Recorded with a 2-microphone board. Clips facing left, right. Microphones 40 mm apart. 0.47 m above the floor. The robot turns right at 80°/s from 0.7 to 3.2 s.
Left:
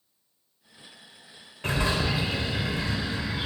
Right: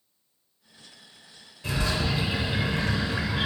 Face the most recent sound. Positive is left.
turn(degrees=-100)